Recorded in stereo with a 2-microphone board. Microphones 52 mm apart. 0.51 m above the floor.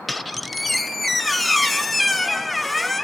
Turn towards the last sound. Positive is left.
turn(degrees=0)  # may be behind; listen again after turning